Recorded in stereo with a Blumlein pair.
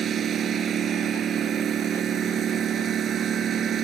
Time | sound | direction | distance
0.0 | a lawn mower | 25° right | ?